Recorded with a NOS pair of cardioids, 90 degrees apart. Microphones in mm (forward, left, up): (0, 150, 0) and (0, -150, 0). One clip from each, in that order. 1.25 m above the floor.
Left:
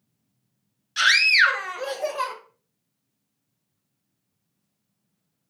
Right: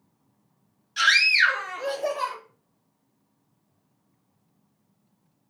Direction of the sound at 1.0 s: 25° left.